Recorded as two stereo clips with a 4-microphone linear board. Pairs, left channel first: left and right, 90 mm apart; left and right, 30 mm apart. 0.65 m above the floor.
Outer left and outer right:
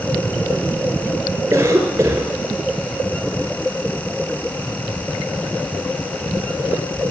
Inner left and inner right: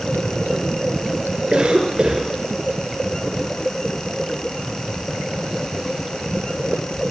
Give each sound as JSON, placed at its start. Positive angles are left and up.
{"t": 1.5, "sound": "a cough", "side_deg": -40, "distance_m": 2.5}